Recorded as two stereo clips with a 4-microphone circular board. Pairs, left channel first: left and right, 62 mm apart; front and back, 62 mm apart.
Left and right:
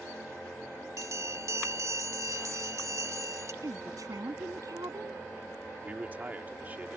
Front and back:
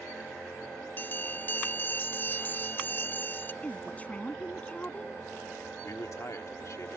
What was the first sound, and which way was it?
A bell, 60° right.